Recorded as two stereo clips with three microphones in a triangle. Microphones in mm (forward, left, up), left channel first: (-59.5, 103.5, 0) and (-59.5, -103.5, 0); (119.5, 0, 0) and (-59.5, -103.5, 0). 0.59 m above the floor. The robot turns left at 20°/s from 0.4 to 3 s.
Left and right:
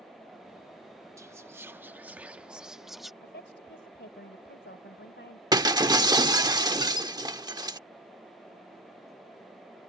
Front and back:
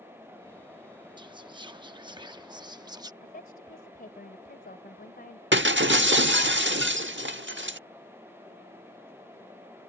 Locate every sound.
1.2 s whispering: 140° right; by 3.1 s straight behind
3.2 s a woman speaking: 70° left
5.5 s breaking glass: 160° right